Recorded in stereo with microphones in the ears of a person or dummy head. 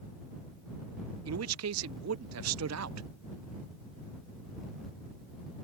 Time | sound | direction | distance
1.2 | a man speaking | 75° right (ahead or behind) | ?